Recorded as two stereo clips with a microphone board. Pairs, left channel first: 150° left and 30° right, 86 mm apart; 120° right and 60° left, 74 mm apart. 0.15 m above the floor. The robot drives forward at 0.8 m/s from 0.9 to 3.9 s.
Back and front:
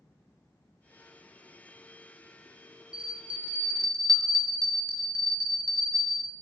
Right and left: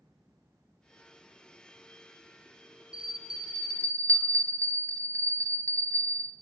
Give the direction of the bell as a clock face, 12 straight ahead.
1 o'clock.